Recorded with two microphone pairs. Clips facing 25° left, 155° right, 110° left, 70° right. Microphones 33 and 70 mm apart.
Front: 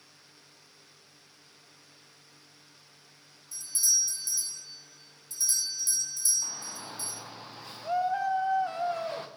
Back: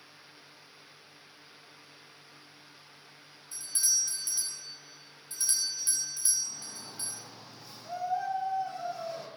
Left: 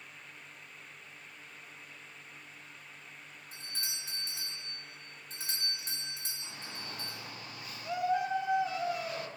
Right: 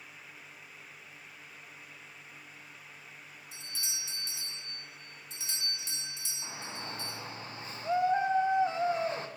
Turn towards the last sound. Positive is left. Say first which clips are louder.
# front 3 dB, right 6 dB
turn(degrees=-10)